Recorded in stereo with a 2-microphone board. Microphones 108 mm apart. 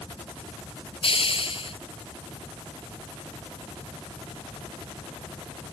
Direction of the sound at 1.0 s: 55° left (ahead or behind).